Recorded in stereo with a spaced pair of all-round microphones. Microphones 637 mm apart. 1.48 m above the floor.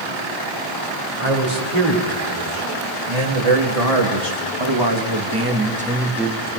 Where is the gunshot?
No gunshot in this recording.